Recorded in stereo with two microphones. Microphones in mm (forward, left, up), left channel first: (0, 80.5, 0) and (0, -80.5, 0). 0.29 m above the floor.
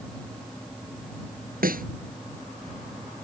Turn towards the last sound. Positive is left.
turn(degrees=-65)  # may be behind; listen again after turning